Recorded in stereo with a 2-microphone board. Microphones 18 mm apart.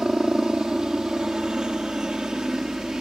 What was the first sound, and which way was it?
A helicopter, 60° right (ahead or behind).